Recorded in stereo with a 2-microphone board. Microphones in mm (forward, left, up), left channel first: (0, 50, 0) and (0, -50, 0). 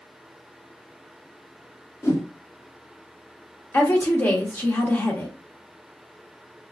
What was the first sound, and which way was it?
A whoosh, 30° left (ahead or behind).